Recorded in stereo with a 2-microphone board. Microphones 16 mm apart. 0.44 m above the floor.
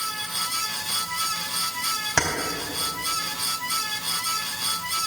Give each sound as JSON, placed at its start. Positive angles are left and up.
{"t": 2.2, "sound": "keys jangling", "side_deg": 65, "distance_m": 1.9}